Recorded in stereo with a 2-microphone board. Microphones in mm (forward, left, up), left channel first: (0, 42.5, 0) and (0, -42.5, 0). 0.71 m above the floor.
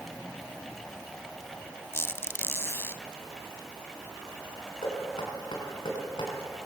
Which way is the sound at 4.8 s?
70° left (ahead or behind).